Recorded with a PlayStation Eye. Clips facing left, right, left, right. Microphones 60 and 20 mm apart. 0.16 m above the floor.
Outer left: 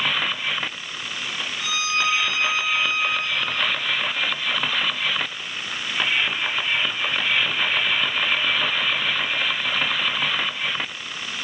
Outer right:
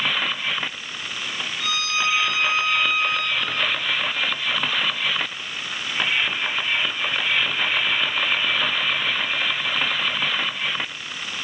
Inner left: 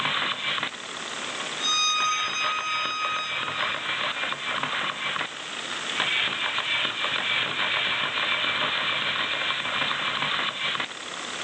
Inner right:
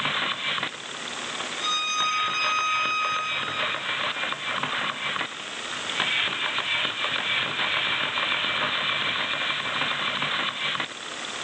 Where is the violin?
15° left (ahead or behind), 6.5 m.